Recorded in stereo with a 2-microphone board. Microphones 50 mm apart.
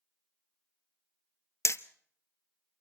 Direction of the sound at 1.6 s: 65° left (ahead or behind).